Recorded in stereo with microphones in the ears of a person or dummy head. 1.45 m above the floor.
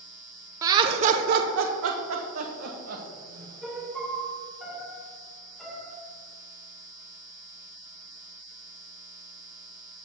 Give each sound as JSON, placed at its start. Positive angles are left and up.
{"t": 0.6, "sound": "laughter", "side_deg": -20, "distance_m": 0.6}
{"t": 3.6, "sound": "a piano", "side_deg": 0, "distance_m": 1.3}